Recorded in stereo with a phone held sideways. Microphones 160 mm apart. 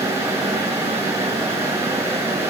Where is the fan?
15° right (ahead or behind), 6.5 m.